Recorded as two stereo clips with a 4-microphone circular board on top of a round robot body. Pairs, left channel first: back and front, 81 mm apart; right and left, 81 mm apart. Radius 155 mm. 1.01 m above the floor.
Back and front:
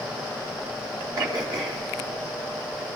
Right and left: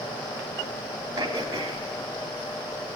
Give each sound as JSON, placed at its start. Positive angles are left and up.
{"t": 1.2, "sound": "throat clearing", "azimuth_deg": 40, "distance_m": 4.0}